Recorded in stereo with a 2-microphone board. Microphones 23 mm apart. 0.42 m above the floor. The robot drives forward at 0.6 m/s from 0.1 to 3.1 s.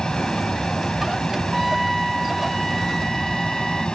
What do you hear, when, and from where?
0.0 s an aircraft: 30° left (ahead or behind)
1.5 s a trumpet: 5° left (ahead or behind); by 3.9 s centre (ahead or behind)